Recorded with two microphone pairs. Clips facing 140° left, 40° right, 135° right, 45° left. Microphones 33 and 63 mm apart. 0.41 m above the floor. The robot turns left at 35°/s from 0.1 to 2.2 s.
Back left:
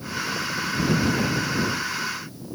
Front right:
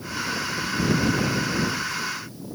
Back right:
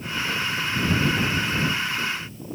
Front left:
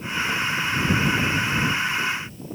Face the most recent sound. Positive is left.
No sound to turn to.